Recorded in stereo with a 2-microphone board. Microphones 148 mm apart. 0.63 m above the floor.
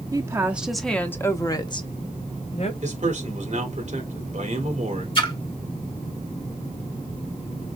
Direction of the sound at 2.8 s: 55° right (ahead or behind).